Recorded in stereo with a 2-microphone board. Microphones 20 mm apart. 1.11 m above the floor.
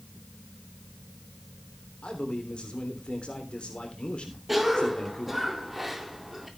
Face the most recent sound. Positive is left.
turn(degrees=-10)  # may be behind; listen again after turning